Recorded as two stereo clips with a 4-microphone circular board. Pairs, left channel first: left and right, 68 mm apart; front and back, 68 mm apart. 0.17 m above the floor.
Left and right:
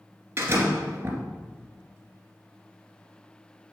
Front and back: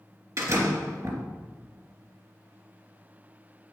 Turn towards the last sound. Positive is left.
turn(degrees=-145)